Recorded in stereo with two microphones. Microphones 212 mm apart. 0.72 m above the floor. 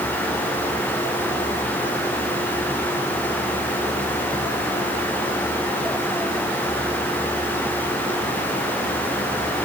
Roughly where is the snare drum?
I don't hear a snare drum.